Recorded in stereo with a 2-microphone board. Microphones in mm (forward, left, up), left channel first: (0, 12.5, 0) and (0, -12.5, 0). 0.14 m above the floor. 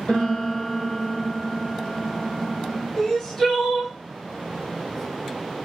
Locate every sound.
0.1 s a piano: 70° left (ahead or behind), 1.5 m
3.0 s crying: 25° left (ahead or behind), 2 m